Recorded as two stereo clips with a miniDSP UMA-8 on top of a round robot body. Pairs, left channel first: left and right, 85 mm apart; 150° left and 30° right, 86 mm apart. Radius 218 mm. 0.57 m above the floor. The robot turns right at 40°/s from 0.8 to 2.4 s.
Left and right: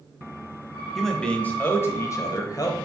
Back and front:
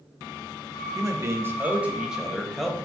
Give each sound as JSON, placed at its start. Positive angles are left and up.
{"t": 0.9, "sound": "a man speaking", "azimuth_deg": 5, "distance_m": 0.9}